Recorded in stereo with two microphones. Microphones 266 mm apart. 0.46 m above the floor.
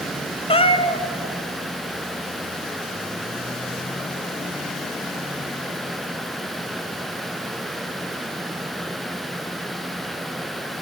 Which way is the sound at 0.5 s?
20° left (ahead or behind).